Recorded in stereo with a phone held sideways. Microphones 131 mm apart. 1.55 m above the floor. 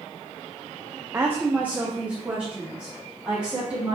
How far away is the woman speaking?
About 0.6 m.